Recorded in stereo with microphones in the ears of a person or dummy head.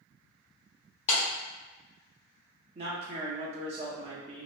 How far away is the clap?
About 1.2 m.